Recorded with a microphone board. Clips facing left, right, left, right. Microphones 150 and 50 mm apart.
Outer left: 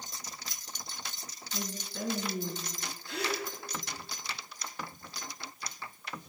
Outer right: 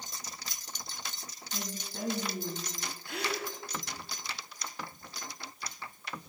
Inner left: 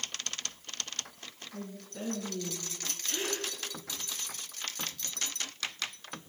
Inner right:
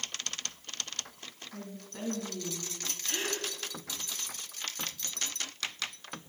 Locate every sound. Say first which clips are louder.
1.5 s a woman speaking: outer left 2 dB, inner left 2 dB; 45° right (ahead or behind), 3 m
3.0 s a gasp: outer left 1 dB, even; 60° right (ahead or behind), 2.5 m